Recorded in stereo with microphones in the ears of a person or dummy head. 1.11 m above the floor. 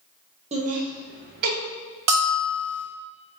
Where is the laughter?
30° right (ahead or behind), 0.6 m; by 1.6 s 50° right (ahead or behind), 0.8 m.